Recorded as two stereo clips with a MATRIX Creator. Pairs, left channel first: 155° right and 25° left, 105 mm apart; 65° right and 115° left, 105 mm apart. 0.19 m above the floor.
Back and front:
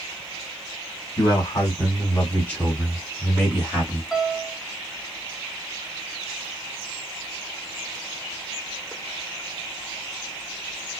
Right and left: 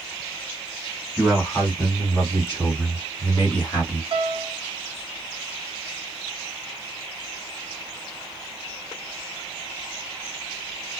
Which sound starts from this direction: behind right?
A man speaking, at 1.2 s.